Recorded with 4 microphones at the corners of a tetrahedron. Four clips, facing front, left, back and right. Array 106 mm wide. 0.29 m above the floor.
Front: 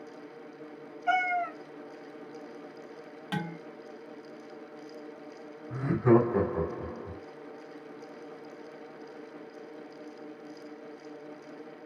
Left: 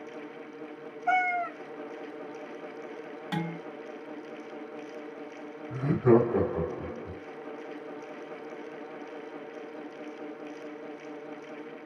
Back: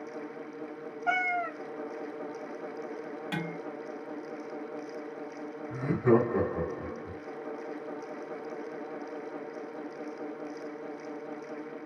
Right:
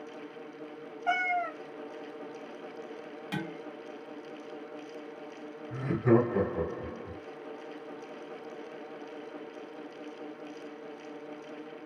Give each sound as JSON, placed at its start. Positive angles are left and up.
{"t": 1.1, "sound": "a cat meowing", "azimuth_deg": -140, "distance_m": 0.5}
{"t": 3.3, "sound": "dishes clattering", "azimuth_deg": 70, "distance_m": 0.8}
{"t": 5.7, "sound": "laughter", "azimuth_deg": 95, "distance_m": 1.3}